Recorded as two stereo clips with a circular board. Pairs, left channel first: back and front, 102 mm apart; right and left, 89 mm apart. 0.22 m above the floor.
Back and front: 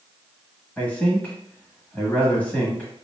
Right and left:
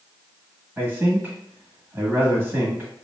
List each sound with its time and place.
0.8 s a man speaking: 120° left, 1.1 m